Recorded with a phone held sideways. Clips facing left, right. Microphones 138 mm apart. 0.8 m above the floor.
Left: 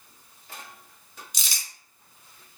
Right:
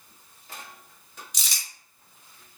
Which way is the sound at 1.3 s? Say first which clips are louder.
Left 1 dB; 5° left (ahead or behind).